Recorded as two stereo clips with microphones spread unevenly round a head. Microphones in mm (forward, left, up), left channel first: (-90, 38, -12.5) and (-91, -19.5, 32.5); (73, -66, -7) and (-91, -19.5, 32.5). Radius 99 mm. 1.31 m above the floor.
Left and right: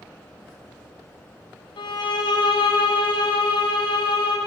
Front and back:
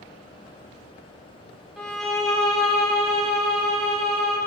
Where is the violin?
80° left, 1.0 m.